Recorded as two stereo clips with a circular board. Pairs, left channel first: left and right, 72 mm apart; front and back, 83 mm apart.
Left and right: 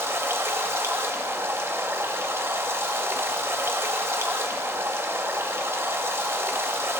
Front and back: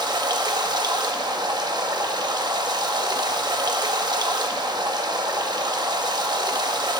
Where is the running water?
145° right, 1.2 m.